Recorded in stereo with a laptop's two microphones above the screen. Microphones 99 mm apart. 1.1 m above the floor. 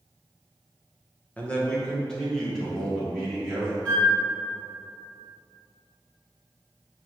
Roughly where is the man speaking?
Centre.